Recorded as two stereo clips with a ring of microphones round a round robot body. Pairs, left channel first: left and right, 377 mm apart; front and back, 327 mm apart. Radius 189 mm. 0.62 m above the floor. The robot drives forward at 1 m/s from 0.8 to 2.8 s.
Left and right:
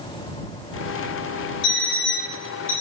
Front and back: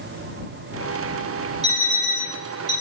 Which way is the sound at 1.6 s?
110° left.